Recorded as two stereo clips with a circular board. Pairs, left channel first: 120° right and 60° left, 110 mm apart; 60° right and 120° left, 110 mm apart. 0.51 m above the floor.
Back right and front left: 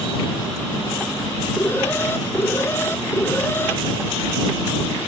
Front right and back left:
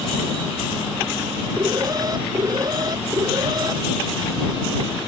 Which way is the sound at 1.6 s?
170° left.